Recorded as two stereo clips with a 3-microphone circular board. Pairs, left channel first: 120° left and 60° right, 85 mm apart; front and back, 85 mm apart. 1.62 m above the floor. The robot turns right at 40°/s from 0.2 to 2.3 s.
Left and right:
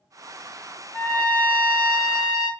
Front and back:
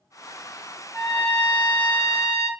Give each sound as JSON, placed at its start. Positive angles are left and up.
{"t": 0.9, "sound": "a trumpet", "azimuth_deg": 165, "distance_m": 1.5}